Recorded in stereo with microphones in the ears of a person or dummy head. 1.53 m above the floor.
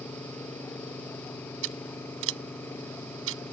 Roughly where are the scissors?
Right.